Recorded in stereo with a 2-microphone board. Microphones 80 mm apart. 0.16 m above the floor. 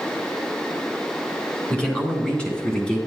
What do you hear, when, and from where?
1.7 s a man speaking: 10° left (ahead or behind), 2 m